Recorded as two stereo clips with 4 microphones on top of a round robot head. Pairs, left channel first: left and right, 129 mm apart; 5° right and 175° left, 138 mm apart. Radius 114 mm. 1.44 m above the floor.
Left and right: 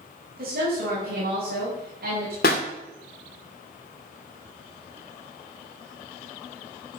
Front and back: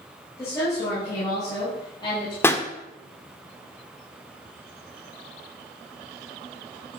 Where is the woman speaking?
80° right, 6.5 m; by 2.3 s 70° right, 6 m.